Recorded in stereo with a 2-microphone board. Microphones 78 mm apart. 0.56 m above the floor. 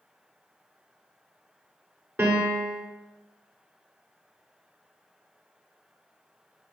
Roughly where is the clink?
No clink in this recording.